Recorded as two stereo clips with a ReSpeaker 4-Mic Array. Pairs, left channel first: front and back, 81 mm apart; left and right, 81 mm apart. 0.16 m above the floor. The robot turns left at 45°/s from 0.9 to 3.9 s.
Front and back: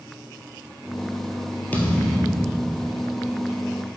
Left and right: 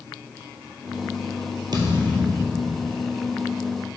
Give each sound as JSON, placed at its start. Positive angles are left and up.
{"t": 1.7, "sound": "a thud", "azimuth_deg": -70, "distance_m": 1.1}